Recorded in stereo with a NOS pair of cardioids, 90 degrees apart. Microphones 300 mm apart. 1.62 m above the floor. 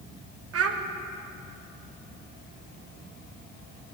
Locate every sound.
0.5 s a child speaking: 55° right, 1.6 m